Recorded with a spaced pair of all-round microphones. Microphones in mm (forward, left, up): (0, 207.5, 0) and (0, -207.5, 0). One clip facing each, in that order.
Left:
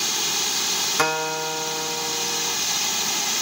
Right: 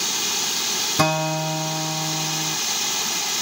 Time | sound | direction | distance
1.0 | a guitar | 55° right (ahead or behind) | ?